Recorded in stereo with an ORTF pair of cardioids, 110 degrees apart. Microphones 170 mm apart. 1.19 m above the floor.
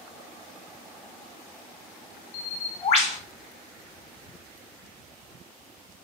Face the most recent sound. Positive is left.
turn(degrees=45)